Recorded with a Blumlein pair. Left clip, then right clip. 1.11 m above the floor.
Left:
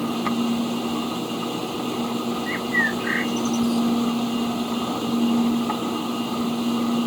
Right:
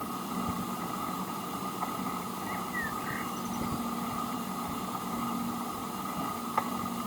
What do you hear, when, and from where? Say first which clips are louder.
0.0 s a machine running: left 10 dB; 55° left
2.5 s a bird: left 13 dB; 55° left